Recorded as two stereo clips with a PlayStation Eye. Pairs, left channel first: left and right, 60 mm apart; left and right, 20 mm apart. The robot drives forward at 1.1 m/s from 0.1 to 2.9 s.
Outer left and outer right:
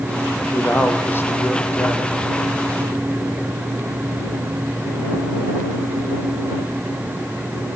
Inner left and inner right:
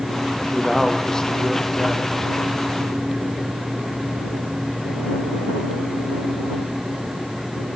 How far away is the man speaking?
About 5 m.